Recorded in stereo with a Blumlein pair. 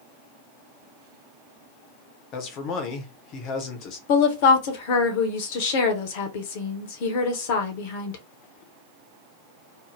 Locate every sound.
2.3 s a man speaking: 35° left, 0.7 m
4.1 s a woman speaking: 50° left, 0.7 m